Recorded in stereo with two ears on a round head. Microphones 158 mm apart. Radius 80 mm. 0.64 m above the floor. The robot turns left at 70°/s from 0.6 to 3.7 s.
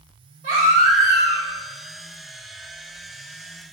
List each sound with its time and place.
0.4 s a baby crying: 130° right, 1.3 m; by 1.5 s 170° left, 1.3 m